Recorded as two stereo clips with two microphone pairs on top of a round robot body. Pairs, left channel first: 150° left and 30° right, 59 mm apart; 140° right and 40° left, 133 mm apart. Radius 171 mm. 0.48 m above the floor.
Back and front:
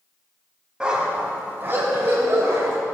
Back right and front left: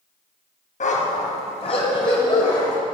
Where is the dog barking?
110° right, 1.3 m; by 2.8 s 75° right, 2.5 m.